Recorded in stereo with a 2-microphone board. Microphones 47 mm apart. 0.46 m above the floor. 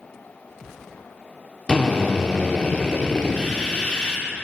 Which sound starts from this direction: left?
A drill, at 1.7 s.